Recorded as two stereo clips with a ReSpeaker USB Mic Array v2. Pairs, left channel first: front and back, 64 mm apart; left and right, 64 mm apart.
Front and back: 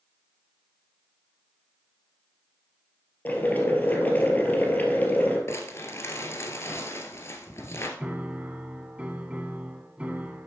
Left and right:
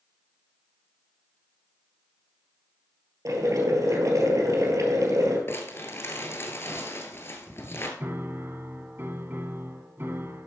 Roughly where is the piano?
Behind right.